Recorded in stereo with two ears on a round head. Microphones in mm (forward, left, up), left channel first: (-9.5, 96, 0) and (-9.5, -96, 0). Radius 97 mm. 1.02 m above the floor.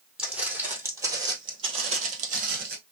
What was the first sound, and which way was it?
Footsteps, 5° right (ahead or behind).